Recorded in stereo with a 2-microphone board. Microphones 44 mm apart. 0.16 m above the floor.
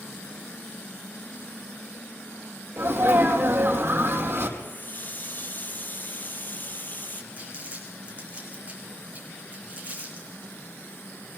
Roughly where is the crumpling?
Right.